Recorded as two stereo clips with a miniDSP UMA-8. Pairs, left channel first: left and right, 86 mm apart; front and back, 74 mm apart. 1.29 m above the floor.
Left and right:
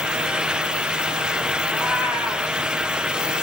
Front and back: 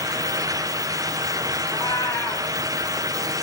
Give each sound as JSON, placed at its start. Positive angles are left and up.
{"t": 1.7, "sound": "a cat meowing", "azimuth_deg": -15, "distance_m": 4.0}